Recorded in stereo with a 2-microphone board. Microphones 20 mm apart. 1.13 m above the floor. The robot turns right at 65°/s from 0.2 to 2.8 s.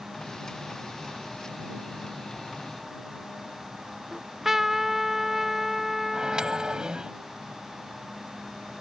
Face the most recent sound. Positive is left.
turn(degrees=-35)  # may be behind; listen again after turning